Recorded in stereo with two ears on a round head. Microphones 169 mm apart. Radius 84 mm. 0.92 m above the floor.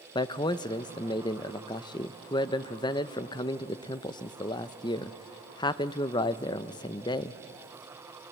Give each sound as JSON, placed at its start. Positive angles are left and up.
{"t": 0.1, "sound": "a man speaking", "side_deg": 25, "distance_m": 0.6}